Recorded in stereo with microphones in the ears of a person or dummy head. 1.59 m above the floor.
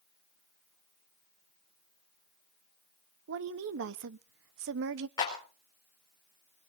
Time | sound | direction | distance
3.3 | a woman speaking | 70° right (ahead or behind) | 0.8 m
5.2 | a clap | 20° left (ahead or behind) | 4.5 m